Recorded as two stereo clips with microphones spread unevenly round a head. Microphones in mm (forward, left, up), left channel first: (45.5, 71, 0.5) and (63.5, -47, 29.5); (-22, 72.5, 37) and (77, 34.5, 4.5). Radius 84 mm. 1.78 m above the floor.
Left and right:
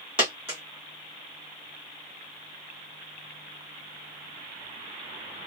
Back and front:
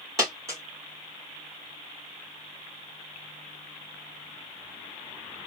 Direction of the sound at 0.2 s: 100° right.